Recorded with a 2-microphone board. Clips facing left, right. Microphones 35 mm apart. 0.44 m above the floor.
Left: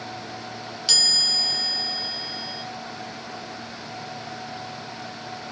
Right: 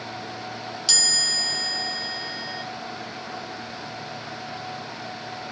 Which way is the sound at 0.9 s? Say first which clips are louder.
Left 2 dB; 15° left (ahead or behind).